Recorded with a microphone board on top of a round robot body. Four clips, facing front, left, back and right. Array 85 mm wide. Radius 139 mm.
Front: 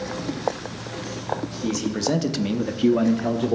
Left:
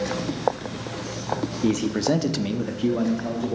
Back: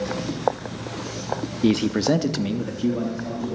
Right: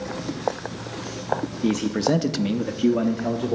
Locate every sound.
1.6 s a man speaking: straight behind, 1.0 m; by 3.5 s 15° right, 1.3 m